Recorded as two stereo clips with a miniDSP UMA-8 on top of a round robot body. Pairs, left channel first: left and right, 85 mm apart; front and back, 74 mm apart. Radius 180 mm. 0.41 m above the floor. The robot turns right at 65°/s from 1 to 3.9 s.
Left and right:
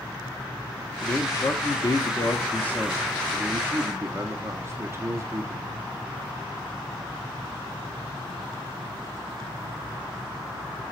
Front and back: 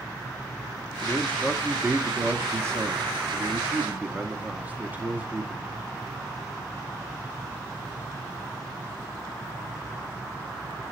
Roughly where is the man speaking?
Ahead left.